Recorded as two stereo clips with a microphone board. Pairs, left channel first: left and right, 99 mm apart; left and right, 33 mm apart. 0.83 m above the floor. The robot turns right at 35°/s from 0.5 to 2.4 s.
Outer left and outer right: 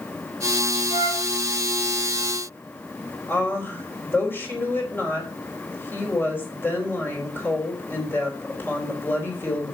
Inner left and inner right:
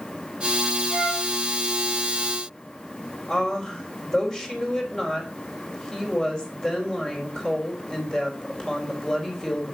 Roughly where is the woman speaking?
Left.